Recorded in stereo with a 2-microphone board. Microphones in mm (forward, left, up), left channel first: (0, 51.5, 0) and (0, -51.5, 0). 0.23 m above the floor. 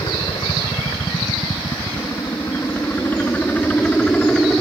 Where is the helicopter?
50° left (ahead or behind); by 4.6 s 5° left (ahead or behind).